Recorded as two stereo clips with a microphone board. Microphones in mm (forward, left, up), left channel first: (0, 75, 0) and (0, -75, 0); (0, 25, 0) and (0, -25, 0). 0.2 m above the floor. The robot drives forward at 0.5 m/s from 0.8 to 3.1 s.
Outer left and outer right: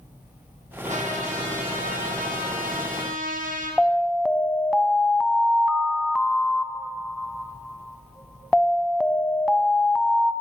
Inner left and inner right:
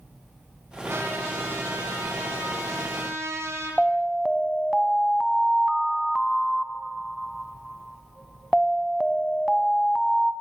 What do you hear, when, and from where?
0.8 s a trumpet: 55° right (ahead or behind), 5.5 m; by 3.8 s 65° right (ahead or behind), 5 m
3.8 s an alarm: centre (ahead or behind), 1.7 m